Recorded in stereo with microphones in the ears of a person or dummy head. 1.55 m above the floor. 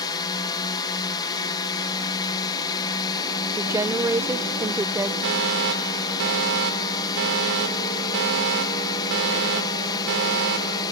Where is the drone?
20° left (ahead or behind).